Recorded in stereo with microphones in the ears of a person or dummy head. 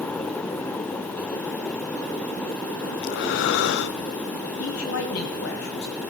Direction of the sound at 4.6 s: 70° left (ahead or behind).